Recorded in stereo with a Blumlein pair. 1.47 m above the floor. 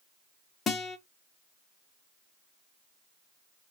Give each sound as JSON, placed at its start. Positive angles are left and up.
{"t": 0.7, "sound": "a guitar", "azimuth_deg": 20, "distance_m": 0.6}